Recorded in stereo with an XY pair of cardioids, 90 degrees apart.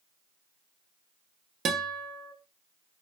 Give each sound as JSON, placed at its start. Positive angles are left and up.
{"t": 1.6, "sound": "a guitar", "azimuth_deg": -65, "distance_m": 0.6}